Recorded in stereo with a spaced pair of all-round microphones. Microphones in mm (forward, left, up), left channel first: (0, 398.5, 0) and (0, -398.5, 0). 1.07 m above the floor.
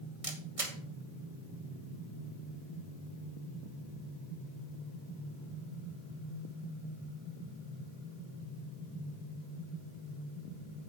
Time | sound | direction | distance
0.2 | a camera shutter | 45° right (ahead or behind) | 1.3 m